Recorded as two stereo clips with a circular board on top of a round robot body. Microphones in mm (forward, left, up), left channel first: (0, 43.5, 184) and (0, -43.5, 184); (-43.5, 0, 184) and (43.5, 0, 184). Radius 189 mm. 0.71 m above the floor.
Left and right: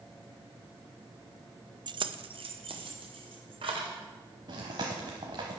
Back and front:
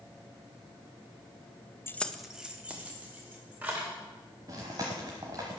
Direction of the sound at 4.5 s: 50° right.